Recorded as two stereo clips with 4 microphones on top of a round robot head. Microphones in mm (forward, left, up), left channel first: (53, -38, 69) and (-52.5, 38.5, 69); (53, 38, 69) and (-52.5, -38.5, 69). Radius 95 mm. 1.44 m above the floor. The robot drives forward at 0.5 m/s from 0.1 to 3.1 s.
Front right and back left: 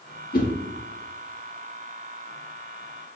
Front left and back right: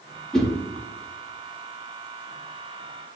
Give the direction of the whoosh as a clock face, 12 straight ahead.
2 o'clock.